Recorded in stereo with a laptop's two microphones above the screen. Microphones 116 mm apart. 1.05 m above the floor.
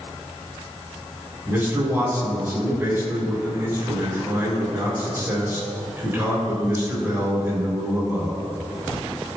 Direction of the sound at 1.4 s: 20° right (ahead or behind).